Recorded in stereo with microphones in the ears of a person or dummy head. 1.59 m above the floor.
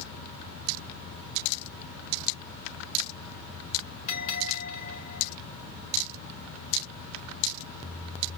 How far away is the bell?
About 3.5 m.